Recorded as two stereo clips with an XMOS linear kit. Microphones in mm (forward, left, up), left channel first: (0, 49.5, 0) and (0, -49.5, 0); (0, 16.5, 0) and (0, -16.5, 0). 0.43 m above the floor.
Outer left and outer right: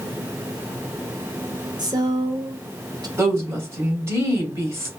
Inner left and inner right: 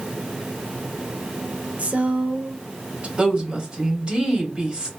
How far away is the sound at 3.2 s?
About 2.5 m.